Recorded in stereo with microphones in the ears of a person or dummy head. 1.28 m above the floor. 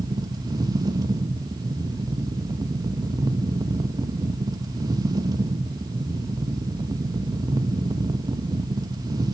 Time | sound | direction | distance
0.0 | a fan | 20° right (ahead or behind) | 0.9 m